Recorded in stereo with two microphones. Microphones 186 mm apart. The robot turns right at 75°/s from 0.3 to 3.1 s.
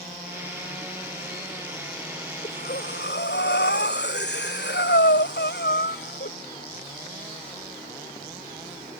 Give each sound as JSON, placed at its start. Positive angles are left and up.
{"t": 2.4, "sound": "breathing", "azimuth_deg": 45}